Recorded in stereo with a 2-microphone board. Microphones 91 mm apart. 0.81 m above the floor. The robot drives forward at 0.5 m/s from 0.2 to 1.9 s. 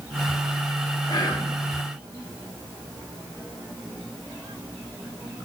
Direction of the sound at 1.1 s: 50° left (ahead or behind).